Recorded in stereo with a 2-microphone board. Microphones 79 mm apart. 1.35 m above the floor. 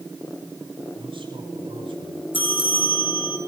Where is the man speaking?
80° right, 9 m.